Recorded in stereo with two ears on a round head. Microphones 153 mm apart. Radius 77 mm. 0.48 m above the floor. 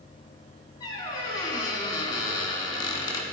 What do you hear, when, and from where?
0.8 s a squeak: 25° left (ahead or behind), 1.0 m